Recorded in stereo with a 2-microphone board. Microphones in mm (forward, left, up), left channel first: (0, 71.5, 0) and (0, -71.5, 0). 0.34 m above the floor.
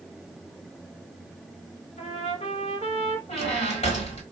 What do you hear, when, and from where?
2.0 s a trumpet: 55° left (ahead or behind), 1.0 m
3.3 s a squeak: 50° left (ahead or behind), 1.4 m